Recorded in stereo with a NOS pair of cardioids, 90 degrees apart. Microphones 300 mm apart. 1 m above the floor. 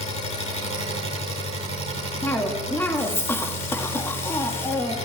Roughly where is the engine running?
Ahead left.